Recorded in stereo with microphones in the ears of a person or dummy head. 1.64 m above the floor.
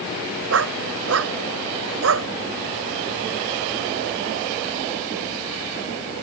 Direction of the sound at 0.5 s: 75° right (ahead or behind).